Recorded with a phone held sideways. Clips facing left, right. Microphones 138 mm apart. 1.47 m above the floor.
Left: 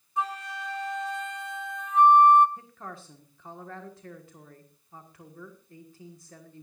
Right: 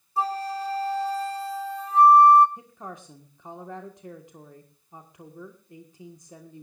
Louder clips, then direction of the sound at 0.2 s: Right 5 dB; 35° right (ahead or behind).